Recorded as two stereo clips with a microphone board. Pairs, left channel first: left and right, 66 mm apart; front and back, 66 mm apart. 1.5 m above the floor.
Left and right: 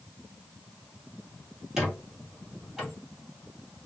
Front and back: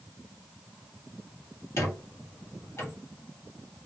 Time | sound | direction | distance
1.8 | a squeak | 10° right | 1.9 m